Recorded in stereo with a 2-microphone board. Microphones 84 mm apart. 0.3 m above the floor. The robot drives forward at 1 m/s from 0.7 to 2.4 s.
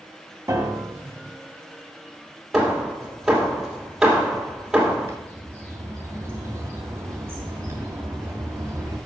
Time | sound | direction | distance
0.5 | a piano | 35° right (ahead or behind) | 0.8 m
2.5 | hammering | 5° right (ahead or behind) | 2 m
5.1 | a bird | 30° right (ahead or behind) | 2.5 m